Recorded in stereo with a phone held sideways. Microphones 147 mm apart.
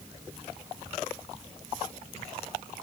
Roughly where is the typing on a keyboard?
I don't hear typing on a keyboard.